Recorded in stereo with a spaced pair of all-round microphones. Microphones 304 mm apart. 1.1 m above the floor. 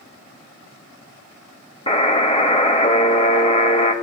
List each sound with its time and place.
1.9 s a buzzer: 20° left (ahead or behind), 0.9 m